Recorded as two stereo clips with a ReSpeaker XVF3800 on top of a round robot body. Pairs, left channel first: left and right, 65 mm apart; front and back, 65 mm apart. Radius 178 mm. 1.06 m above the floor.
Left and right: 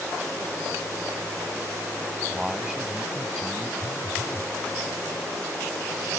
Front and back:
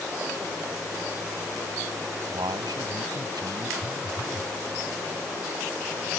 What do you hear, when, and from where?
2.3 s a man speaking: 170° right
3.8 s a phone buzzing: 145° left